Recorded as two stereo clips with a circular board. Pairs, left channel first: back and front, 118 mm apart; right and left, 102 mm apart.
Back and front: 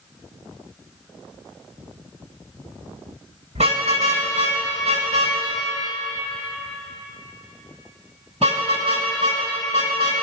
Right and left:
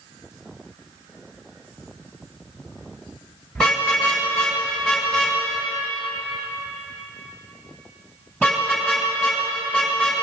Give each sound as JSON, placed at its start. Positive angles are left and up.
{"t": 3.5, "sound": "a car horn", "azimuth_deg": -10, "distance_m": 5.5}